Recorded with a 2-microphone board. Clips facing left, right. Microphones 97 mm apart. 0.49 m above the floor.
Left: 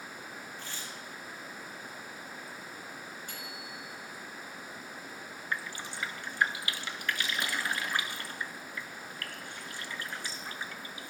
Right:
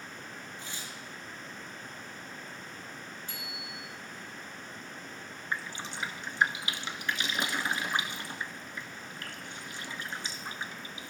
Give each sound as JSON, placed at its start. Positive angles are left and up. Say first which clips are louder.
{"t": 0.6, "sound": "tearing paper", "louder": "even", "side_deg": -20, "distance_m": 3.0}
{"t": 3.3, "sound": "a bicycle bell", "louder": "even", "side_deg": 55, "distance_m": 4.5}
{"t": 5.5, "sound": "dripping", "louder": "right 1 dB", "side_deg": -20, "distance_m": 1.0}